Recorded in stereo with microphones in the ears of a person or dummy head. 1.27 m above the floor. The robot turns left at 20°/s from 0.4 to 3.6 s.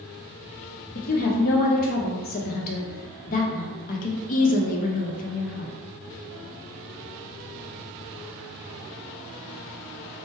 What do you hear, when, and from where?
0.9 s a woman speaking: 120° left, 0.5 m; by 5.7 s 65° left, 0.5 m